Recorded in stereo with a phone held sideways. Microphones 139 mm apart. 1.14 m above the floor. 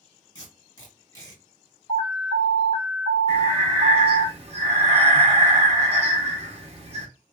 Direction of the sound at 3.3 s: 45° right (ahead or behind).